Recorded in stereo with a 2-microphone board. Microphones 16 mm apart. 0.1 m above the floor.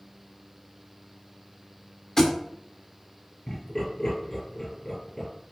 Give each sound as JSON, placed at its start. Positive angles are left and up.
{"t": 2.2, "sound": "a thud", "side_deg": 30, "distance_m": 1.1}
{"t": 3.5, "sound": "laughter", "side_deg": 30, "distance_m": 1.9}